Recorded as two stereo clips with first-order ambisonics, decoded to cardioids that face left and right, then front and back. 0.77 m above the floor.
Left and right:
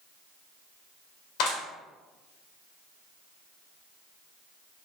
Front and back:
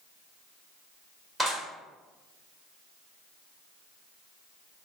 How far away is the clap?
About 1.9 m.